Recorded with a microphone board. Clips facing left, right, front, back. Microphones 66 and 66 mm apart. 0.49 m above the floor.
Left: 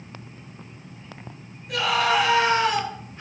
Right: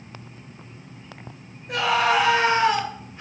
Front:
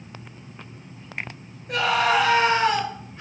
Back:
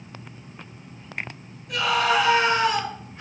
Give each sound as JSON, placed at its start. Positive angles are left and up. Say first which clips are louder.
{"t": 1.7, "sound": "a scream", "louder": "right 1 dB, front 1 dB", "azimuth_deg": -45, "distance_m": 2.5}